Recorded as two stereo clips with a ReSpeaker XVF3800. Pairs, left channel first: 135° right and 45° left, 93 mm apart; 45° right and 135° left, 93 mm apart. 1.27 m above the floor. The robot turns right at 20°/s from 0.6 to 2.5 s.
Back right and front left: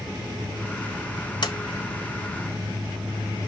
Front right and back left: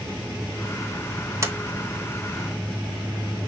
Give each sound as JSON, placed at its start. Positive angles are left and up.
{"t": 1.4, "sound": "a sliding door", "azimuth_deg": -170, "distance_m": 1.3}